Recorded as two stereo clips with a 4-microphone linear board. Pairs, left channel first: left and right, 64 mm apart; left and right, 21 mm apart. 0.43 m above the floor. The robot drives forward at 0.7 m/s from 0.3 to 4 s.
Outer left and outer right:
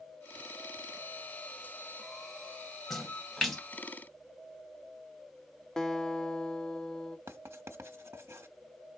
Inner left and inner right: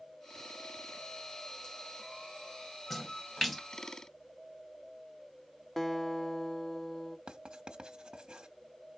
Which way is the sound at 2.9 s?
5° left (ahead or behind).